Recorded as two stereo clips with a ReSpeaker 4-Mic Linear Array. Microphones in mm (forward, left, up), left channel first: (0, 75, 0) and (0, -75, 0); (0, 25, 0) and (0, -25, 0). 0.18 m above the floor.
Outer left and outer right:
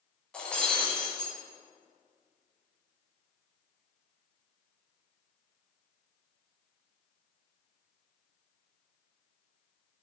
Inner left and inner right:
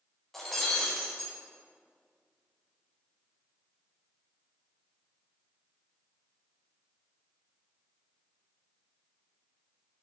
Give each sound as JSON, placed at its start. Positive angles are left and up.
{"t": 0.3, "sound": "breaking glass", "side_deg": 5, "distance_m": 7.5}